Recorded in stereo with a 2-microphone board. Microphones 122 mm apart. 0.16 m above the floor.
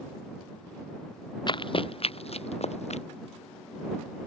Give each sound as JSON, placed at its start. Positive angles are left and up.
{"t": 1.5, "sound": "running footsteps", "side_deg": 40}